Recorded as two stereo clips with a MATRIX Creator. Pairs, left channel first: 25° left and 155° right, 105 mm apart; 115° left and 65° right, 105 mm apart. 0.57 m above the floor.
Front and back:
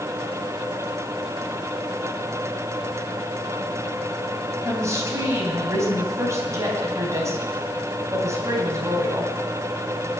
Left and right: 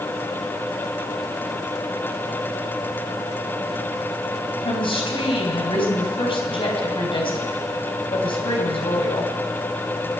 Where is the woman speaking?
140° left, 3.5 m.